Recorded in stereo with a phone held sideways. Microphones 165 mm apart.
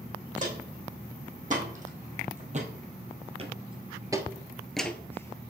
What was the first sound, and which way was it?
Footsteps, 50° right (ahead or behind).